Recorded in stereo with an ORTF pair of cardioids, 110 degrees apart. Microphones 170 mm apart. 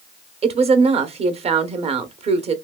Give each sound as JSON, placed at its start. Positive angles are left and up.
{"t": 0.4, "sound": "a woman speaking", "azimuth_deg": -40, "distance_m": 0.9}